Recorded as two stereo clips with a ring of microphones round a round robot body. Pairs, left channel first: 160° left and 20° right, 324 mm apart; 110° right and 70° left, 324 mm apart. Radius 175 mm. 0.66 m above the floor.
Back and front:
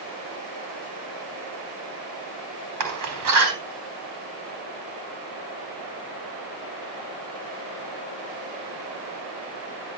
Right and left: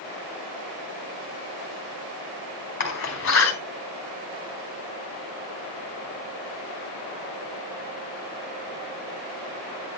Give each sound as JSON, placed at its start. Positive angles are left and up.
{"t": 2.8, "sound": "a door slam", "azimuth_deg": -55, "distance_m": 4.5}